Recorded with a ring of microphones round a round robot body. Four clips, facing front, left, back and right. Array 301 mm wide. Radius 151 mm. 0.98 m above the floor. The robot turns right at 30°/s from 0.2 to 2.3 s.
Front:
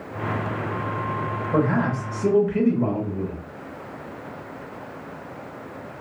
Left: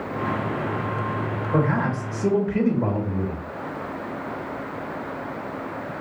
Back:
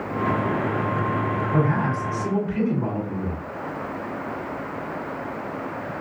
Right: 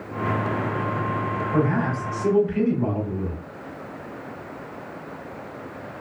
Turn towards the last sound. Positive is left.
turn(degrees=65)